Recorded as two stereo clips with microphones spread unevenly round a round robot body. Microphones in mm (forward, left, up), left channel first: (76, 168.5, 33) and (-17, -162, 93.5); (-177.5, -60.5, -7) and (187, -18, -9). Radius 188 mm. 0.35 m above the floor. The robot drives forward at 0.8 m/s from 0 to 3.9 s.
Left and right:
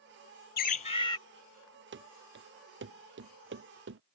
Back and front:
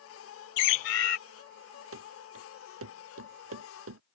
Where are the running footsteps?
45° right; by 4.0 s 50° right.